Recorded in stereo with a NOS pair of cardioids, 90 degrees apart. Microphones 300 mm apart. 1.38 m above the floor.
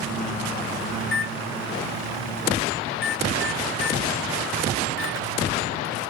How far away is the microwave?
About 0.6 m.